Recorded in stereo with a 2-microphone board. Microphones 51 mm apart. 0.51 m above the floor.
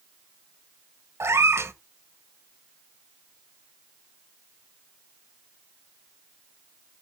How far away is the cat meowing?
About 1.1 m.